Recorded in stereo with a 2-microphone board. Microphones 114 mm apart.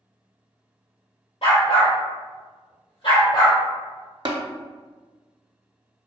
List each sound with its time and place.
1.4 s a dog barking: 70° left (ahead or behind), 1.3 m; by 3.6 s 45° left (ahead or behind), 1.7 m
4.2 s tapping: 50° right (ahead or behind), 0.5 m